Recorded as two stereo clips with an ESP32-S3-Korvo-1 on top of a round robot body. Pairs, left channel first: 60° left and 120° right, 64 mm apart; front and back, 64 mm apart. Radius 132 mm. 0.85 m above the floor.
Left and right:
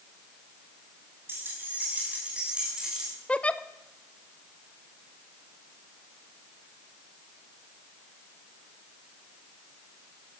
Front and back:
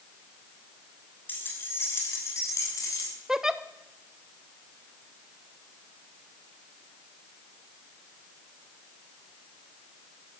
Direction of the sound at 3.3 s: 105° left.